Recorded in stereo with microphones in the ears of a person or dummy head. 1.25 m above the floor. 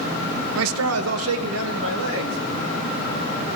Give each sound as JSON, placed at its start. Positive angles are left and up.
{"t": 0.6, "sound": "a man speaking", "side_deg": -75, "distance_m": 0.9}